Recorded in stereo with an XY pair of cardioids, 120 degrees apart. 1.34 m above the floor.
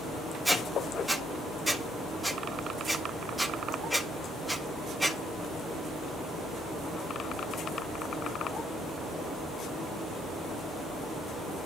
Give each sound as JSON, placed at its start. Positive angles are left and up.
{"t": 0.5, "sound": "a squeak", "azimuth_deg": 0, "distance_m": 1.7}